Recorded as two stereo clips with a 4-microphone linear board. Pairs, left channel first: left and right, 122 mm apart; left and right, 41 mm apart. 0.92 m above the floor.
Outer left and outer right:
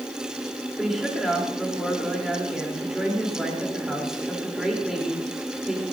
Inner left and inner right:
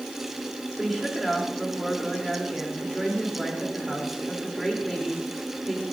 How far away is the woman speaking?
About 3 m.